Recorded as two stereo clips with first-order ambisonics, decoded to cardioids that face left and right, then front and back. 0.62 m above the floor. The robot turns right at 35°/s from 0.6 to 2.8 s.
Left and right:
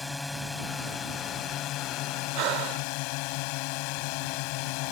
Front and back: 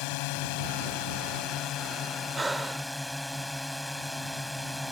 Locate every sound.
0.0 s a drone: 10° left; by 4.9 s 85° left
2.4 s breathing: 100° right; by 2.9 s 85° right